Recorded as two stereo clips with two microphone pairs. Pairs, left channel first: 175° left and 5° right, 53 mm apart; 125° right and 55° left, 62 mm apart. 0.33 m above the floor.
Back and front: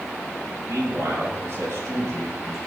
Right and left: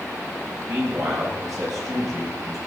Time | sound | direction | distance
0.7 | a man speaking | 30° left | 8.5 m